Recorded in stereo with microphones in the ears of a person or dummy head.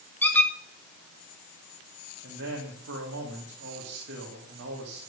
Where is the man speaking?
75° right (ahead or behind), 2.5 m.